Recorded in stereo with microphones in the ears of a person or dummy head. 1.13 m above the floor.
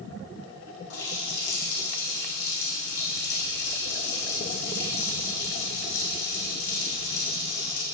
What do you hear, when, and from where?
0.9 s a running tap: 60° left (ahead or behind), 2 m